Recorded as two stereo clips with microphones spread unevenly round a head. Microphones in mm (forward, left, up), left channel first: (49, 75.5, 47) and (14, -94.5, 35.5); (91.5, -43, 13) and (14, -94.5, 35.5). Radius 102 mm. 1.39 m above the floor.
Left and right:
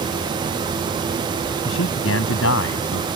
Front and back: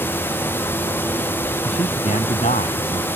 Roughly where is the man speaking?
Left.